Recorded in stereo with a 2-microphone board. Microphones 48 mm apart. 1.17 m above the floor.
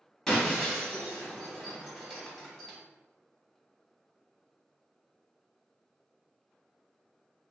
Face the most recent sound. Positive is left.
turn(degrees=15)  # may be behind; listen again after turning